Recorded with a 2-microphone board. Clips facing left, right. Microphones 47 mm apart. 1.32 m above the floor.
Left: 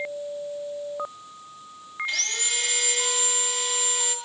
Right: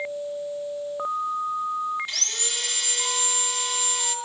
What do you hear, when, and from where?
2.1 s sawing: 20° left (ahead or behind), 2 m